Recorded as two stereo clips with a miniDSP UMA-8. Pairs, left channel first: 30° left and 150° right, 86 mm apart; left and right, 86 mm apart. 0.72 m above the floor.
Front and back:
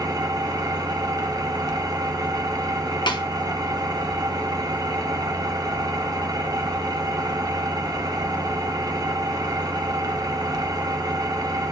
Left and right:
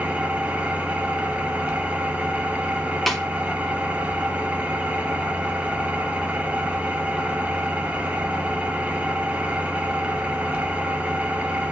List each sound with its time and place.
0.0 s an engine running: 160° right, 0.8 m
3.1 s a snare drum: straight ahead, 0.7 m